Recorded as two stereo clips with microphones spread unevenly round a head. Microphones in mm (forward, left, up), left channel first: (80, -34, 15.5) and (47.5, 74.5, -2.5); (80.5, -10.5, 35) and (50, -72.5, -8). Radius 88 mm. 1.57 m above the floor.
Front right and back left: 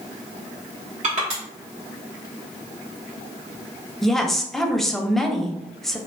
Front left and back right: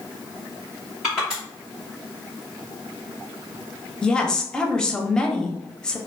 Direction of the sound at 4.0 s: 10° left.